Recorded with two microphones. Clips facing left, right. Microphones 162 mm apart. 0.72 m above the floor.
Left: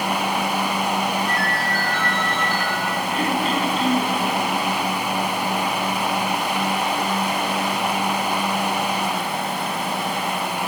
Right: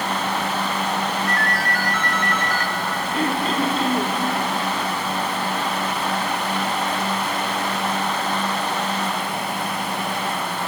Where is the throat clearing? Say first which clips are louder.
Right 1 dB; 35° right (ahead or behind), 1.9 m.